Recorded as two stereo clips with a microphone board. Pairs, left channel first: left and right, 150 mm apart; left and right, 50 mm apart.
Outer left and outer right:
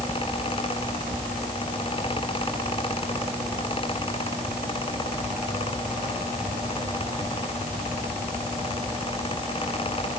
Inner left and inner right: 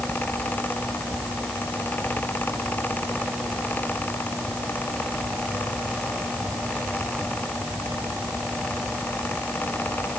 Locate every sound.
Only background noise.